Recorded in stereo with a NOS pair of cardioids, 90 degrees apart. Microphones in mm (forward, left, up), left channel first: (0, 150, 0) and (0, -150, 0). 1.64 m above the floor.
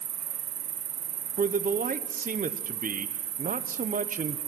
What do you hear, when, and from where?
0.0 s an insect: 60° right, 1.1 m
1.4 s a man speaking: 30° right, 0.8 m